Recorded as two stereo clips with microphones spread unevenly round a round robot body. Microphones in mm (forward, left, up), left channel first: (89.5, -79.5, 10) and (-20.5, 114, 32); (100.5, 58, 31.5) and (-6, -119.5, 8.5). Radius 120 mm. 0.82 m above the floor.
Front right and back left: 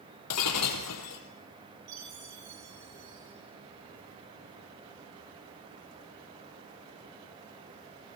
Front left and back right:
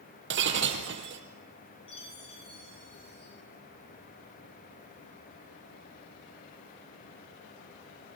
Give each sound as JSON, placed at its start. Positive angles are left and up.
{"t": 0.3, "sound": "breaking glass", "azimuth_deg": -90, "distance_m": 2.5}
{"t": 1.9, "sound": "a chime", "azimuth_deg": 130, "distance_m": 9.5}